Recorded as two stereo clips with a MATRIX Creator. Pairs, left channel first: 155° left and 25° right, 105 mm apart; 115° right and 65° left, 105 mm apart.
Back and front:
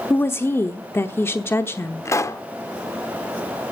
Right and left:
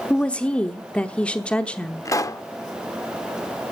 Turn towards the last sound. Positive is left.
turn(degrees=-155)